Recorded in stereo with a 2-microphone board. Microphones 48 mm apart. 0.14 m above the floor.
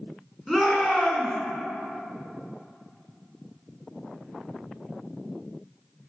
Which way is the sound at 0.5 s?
Centre (ahead or behind).